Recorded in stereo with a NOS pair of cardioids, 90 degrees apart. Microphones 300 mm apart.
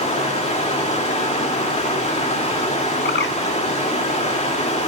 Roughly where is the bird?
Ahead left.